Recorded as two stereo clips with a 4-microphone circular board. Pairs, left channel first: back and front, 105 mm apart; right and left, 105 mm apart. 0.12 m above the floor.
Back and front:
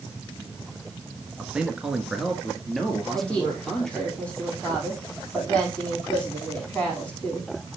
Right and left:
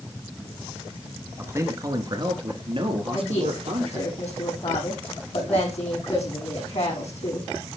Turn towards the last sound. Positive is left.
turn(degrees=-100)